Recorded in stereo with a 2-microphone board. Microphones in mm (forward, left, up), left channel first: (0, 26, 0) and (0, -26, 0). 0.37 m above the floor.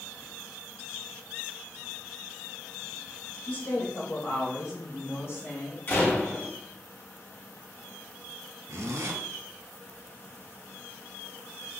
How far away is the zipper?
About 0.6 m.